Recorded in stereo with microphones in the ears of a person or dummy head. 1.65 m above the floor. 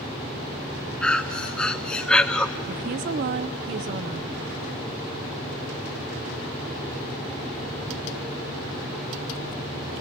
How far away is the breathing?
About 0.7 m.